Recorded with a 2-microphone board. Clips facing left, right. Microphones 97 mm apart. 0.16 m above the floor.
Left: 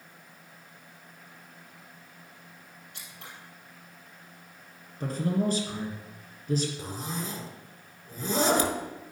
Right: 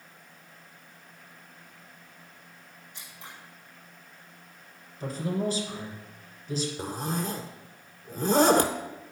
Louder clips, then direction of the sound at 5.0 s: Left 2 dB; 50° left (ahead or behind).